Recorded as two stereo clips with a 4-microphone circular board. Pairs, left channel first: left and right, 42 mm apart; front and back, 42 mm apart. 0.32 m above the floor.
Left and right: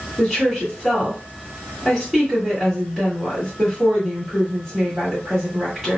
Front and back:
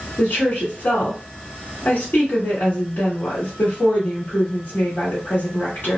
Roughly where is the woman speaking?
Ahead.